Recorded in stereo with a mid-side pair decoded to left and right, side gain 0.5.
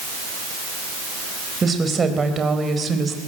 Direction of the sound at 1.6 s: 30° right.